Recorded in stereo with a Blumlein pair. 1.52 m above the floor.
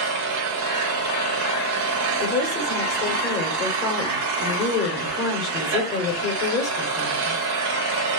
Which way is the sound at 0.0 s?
45° right.